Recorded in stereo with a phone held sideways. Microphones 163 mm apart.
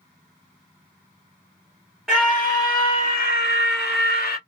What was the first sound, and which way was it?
A scream, 5° left (ahead or behind).